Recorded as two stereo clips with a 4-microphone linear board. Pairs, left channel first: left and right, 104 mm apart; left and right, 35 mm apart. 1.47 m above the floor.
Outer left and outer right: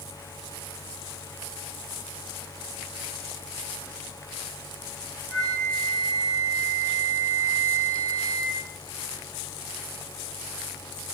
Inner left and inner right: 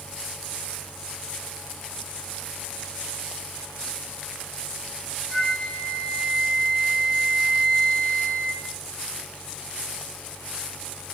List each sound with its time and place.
5.3 s a flute: 20° left (ahead or behind), 1.2 m